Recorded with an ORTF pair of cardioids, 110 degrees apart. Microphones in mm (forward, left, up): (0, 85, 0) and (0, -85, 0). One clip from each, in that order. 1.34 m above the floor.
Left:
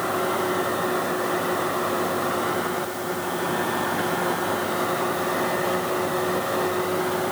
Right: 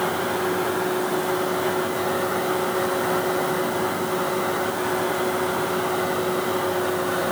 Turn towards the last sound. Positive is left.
No sound to turn to.